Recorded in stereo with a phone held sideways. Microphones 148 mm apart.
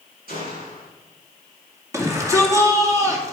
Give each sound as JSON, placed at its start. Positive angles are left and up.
{"t": 0.3, "sound": "a gunshot", "side_deg": -75, "distance_m": 5.0}
{"t": 1.9, "sound": "a shout", "side_deg": -20, "distance_m": 2.0}